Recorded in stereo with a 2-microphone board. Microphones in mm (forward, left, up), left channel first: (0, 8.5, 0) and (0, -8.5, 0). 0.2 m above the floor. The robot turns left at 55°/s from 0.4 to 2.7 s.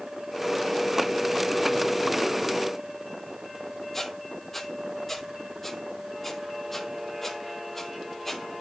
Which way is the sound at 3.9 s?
15° left (ahead or behind).